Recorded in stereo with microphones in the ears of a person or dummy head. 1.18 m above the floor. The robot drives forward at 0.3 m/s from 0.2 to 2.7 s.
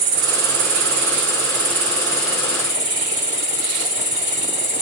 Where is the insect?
60° right (ahead or behind), 0.9 m; by 4.8 s 35° right (ahead or behind), 1.4 m.